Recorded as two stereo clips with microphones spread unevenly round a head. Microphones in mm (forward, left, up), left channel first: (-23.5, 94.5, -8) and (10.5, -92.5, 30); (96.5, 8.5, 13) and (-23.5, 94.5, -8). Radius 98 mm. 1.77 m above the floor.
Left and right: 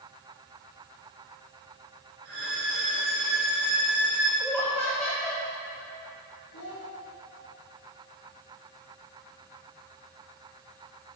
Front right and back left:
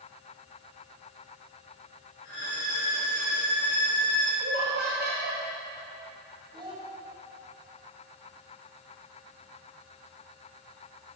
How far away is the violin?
About 3.5 m.